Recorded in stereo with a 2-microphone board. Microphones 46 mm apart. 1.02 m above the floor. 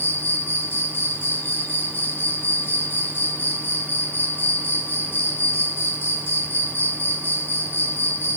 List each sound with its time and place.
0.0 s an insect: 50° left (ahead or behind), 0.9 m